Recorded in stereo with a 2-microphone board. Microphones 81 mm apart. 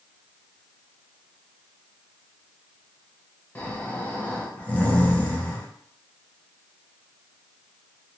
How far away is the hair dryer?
No hair dryer in this recording.